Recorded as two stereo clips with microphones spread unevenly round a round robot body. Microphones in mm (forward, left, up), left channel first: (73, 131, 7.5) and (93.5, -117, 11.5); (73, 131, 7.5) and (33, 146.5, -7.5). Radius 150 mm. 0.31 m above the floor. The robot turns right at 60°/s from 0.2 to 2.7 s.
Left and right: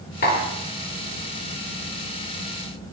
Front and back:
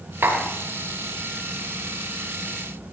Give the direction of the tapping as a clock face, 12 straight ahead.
7 o'clock.